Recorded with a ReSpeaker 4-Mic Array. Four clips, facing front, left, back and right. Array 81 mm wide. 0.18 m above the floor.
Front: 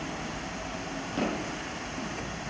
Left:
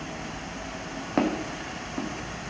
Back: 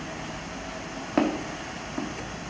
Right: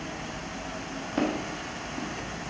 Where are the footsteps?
135° left, 1.6 m.